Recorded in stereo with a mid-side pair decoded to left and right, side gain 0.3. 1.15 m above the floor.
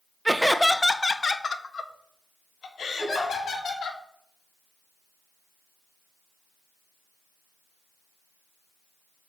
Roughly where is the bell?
I don't hear a bell.